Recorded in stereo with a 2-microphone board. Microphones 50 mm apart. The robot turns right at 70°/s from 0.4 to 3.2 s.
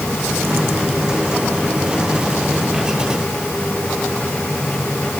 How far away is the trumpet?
No trumpet in this recording.